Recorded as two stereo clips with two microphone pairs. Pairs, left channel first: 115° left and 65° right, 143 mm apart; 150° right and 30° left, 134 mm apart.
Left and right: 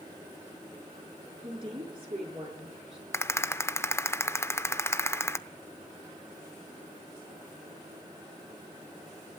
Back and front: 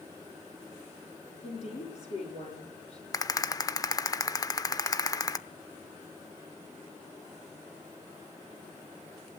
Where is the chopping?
No chopping in this recording.